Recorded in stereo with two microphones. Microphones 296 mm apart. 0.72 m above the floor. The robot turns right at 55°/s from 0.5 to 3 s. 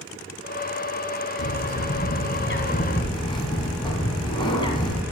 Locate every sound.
1.4 s a bird: 75° left, 1.7 m; by 5.0 s 165° left, 1.7 m